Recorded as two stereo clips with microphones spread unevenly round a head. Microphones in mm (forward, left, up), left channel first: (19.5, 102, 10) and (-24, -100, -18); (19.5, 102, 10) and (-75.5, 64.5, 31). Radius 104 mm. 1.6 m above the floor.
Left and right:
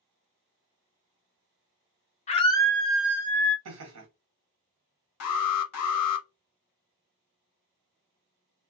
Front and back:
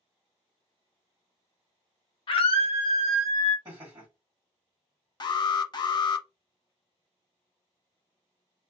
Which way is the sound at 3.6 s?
85° right.